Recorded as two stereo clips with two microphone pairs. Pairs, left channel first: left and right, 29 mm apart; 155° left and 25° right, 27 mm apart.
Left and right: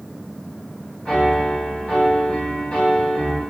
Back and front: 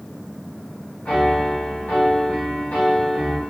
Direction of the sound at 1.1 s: 145° left.